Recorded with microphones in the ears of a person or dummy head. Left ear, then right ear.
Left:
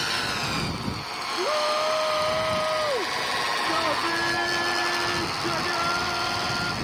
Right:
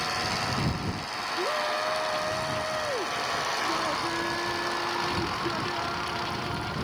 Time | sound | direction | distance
1.4 | a shout | 30° left (ahead or behind) | ?